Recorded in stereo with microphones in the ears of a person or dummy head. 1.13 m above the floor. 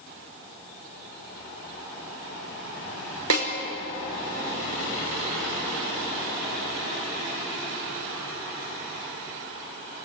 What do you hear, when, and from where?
3.3 s a snare drum: 80° right, 5 m